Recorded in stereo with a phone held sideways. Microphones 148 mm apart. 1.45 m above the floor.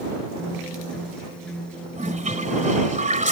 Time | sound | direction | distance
0.4 | a guitar | 5° left (ahead or behind) | ?
1.9 | a toilet flushing | 60° right (ahead or behind) | ?